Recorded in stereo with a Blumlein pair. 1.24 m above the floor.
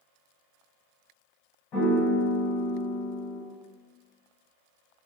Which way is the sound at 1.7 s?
35° left.